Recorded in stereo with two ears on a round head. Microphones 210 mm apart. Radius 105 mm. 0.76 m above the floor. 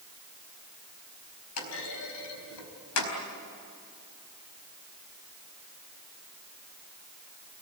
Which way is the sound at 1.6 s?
80° left.